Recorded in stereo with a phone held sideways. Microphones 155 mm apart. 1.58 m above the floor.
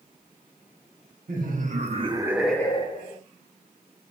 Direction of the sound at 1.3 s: 65° right (ahead or behind).